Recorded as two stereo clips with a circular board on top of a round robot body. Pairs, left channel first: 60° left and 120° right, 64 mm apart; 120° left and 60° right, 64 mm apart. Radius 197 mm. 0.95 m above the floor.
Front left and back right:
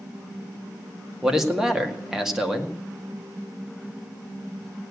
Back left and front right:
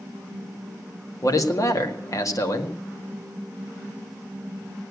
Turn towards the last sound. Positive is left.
turn(degrees=155)